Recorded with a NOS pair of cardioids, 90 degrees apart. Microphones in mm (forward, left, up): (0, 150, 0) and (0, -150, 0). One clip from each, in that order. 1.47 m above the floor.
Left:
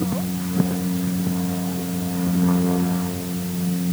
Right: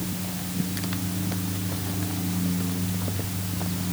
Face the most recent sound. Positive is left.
No sound to turn to.